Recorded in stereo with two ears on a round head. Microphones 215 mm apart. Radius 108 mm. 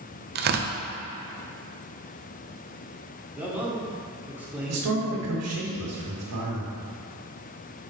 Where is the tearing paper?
45° right (ahead or behind), 0.6 m.